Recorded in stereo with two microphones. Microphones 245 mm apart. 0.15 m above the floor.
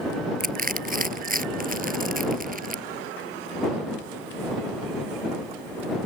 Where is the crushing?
35° right (ahead or behind).